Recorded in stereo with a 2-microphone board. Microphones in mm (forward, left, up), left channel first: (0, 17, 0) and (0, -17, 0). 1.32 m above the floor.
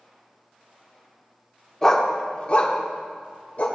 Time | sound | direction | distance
1.8 | a dog barking | 15° left (ahead or behind) | 1.0 m